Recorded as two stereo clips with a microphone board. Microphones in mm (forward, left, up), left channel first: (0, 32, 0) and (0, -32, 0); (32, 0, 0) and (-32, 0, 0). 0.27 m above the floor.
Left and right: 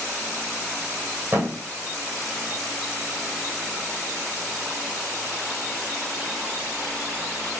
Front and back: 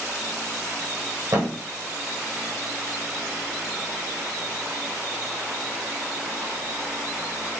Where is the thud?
150° right, 1.7 m.